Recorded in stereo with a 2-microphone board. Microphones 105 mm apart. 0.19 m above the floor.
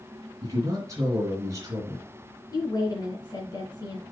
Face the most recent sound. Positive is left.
turn(degrees=35)  # may be behind; listen again after turning